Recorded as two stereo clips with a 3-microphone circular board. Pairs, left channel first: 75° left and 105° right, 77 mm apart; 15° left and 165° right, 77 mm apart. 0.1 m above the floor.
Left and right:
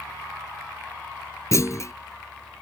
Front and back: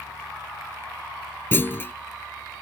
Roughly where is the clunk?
Ahead left.